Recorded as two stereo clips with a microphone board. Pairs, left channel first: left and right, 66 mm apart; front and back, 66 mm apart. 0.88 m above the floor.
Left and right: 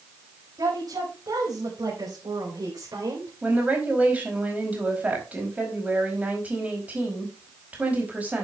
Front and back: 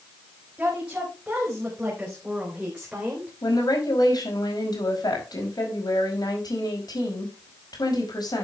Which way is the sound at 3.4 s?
20° right.